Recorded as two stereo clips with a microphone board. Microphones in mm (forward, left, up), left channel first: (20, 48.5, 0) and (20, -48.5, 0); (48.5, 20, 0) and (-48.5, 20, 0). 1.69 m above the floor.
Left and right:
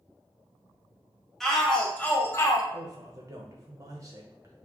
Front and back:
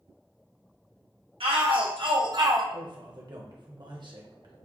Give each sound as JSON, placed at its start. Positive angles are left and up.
{"t": 1.4, "sound": "a shout", "azimuth_deg": 180, "distance_m": 1.3}
{"t": 2.7, "sound": "a man speaking", "azimuth_deg": -145, "distance_m": 1.1}